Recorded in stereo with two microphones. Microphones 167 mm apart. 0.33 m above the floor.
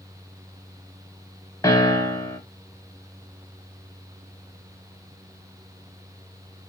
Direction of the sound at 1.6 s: 20° left (ahead or behind).